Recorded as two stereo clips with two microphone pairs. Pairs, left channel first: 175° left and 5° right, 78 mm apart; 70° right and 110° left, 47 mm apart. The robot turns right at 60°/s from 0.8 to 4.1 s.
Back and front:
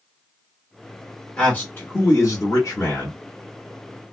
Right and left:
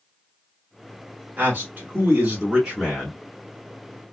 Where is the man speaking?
110° left, 1.5 m; by 3.1 s 145° right, 1.5 m.